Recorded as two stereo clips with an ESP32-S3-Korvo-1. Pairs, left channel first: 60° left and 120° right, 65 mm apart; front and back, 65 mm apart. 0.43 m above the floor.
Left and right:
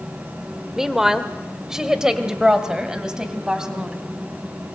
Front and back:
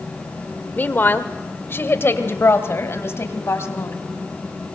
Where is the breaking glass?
No breaking glass in this recording.